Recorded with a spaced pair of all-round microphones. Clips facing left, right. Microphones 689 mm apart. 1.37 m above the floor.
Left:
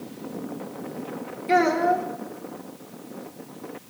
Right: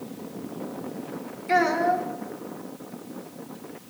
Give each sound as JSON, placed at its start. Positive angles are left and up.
{"t": 1.5, "sound": "a child speaking", "side_deg": 60, "distance_m": 3.0}